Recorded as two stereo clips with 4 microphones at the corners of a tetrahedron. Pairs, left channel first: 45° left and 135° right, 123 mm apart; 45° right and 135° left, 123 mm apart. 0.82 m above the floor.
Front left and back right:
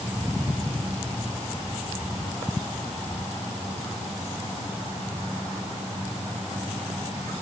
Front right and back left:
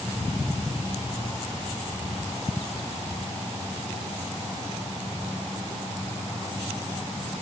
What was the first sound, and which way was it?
Only background noise.